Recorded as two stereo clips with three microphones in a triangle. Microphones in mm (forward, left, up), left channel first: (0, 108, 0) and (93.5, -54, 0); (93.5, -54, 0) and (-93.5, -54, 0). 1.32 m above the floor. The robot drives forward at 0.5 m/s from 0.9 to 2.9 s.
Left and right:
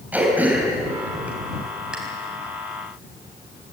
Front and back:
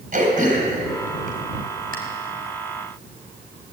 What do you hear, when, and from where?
0.1 s throat clearing: 140° right, 4 m; by 2.0 s 145° right, 4.5 m